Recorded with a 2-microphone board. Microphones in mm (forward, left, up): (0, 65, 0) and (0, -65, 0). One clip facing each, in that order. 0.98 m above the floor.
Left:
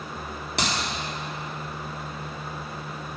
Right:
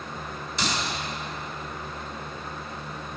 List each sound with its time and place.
0.6 s a clap: 65° left (ahead or behind), 2.0 m